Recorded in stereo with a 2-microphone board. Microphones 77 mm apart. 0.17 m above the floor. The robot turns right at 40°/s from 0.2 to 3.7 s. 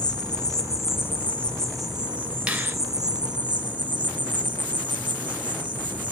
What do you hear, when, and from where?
0.0 s an insect: 115° left, 1.0 m; by 6.1 s 105° right, 1.0 m
2.5 s a finger snap: 15° right (ahead or behind), 1.4 m; by 2.8 s 20° right (ahead or behind), 1.4 m